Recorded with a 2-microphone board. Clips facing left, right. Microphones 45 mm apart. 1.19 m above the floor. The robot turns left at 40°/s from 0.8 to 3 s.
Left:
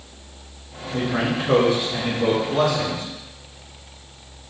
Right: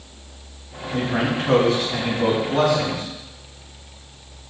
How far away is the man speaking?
About 2.5 m.